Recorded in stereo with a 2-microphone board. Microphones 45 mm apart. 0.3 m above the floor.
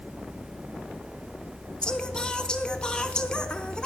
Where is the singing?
20° left (ahead or behind), 0.5 m.